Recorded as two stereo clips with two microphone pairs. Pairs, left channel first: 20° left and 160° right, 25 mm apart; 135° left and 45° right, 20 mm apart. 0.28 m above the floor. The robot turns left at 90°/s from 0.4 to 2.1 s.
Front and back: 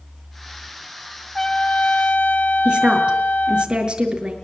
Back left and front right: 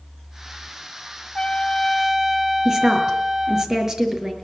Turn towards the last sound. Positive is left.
turn(degrees=-110)